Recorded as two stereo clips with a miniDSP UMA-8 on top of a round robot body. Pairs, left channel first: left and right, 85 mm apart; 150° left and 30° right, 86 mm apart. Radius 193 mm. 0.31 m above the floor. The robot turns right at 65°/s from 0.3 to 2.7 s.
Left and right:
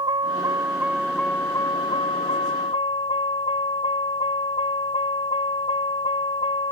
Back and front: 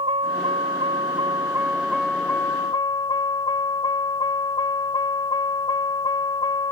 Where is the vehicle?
50° right; by 6.7 s 105° left.